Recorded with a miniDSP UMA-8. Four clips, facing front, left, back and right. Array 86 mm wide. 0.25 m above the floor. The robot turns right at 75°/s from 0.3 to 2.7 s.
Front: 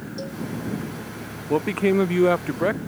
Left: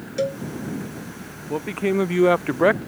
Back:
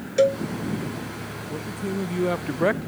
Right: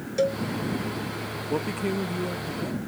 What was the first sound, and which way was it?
A cowbell, straight behind.